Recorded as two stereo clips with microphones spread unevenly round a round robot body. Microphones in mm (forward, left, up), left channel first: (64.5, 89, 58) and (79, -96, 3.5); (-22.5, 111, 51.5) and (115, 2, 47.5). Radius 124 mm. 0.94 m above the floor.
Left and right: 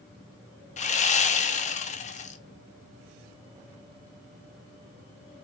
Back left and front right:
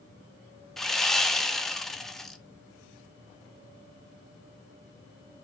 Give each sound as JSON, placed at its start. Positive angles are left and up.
{"t": 0.8, "sound": "sawing", "azimuth_deg": 55, "distance_m": 0.6}